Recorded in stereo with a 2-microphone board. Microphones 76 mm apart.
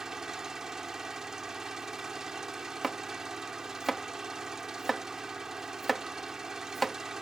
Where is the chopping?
Centre (ahead or behind).